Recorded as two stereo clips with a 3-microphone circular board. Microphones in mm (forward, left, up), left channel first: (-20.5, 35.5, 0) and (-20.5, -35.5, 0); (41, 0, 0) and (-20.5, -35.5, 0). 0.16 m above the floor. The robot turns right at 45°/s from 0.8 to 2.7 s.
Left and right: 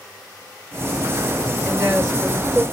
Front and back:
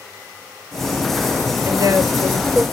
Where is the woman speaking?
Straight behind, 3 m; by 2.6 s 140° right, 3 m.